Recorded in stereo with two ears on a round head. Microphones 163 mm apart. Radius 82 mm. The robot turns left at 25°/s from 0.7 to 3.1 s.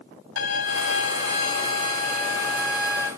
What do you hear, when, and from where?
0.4 s a violin: 80° left, 1.9 m; by 3.1 s 20° left, 1.9 m